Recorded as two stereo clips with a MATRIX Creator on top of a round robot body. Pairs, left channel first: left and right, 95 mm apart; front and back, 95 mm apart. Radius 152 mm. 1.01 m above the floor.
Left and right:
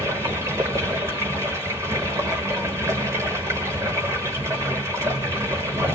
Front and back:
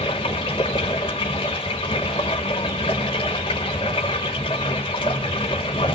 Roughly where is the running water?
Ahead right.